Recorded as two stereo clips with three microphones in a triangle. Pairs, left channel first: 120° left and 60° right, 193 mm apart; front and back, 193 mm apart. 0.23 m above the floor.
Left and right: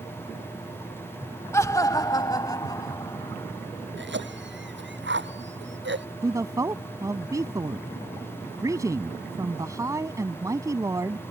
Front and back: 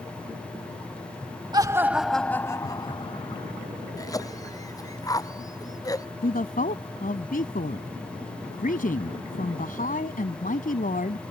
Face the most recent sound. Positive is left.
turn(degrees=5)